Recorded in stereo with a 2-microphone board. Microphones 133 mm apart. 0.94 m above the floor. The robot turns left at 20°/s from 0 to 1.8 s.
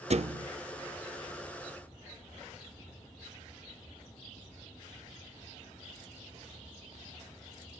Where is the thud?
55° right (ahead or behind), 0.7 m; by 0.5 s 50° right (ahead or behind), 0.7 m.